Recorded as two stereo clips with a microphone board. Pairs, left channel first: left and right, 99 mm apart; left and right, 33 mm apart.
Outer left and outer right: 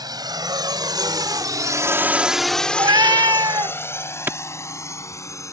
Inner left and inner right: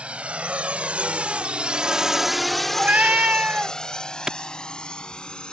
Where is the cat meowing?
50° right (ahead or behind).